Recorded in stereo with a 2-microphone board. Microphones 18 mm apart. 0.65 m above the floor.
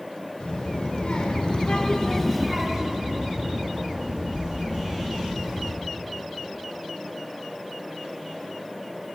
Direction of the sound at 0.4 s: 80° left.